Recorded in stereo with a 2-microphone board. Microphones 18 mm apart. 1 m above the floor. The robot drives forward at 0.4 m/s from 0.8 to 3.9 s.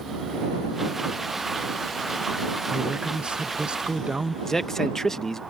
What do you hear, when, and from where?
2.7 s a woman speaking: 60° right (ahead or behind)
4.5 s a man speaking: 20° left (ahead or behind)